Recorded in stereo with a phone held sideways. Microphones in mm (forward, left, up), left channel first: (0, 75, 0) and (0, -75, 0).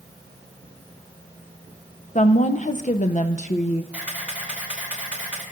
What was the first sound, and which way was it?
A woman speaking, 50° left (ahead or behind).